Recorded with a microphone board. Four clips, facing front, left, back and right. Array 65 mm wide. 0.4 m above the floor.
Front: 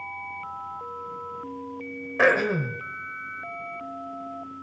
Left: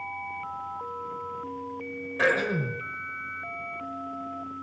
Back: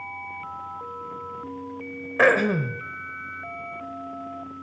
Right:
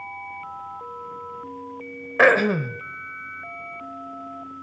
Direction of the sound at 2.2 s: 100° right.